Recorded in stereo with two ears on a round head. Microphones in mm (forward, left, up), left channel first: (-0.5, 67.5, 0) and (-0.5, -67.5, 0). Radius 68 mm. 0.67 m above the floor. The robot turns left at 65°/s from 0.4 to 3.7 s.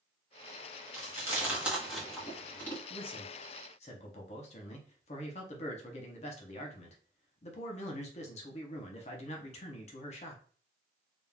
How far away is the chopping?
I don't hear chopping.